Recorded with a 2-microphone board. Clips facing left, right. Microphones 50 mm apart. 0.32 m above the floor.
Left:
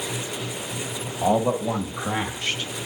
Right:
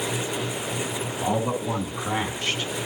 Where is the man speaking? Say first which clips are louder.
Left 5 dB; 45° left (ahead or behind), 1.5 m; by 2.7 s 10° left (ahead or behind), 1.7 m.